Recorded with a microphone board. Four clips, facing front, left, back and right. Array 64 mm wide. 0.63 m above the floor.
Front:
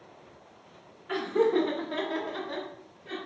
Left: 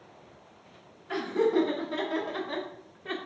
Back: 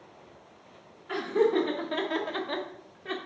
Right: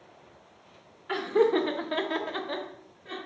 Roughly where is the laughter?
Right.